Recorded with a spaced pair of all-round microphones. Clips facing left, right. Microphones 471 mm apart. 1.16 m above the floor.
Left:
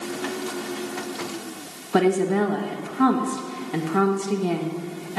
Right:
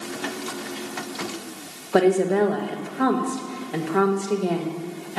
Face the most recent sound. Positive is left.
turn(degrees=20)  # may be behind; listen again after turning